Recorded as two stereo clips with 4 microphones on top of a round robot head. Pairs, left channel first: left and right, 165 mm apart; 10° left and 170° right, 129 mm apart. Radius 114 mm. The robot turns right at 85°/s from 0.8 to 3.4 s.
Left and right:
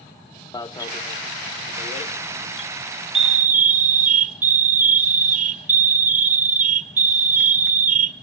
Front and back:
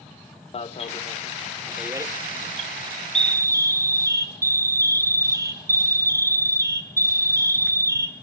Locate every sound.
0.5 s an alarm: 30° left, 0.7 m; by 8.1 s 110° right, 0.7 m